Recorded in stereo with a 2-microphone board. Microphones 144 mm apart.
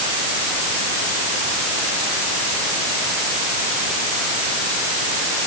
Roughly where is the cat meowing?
I don't hear a cat meowing.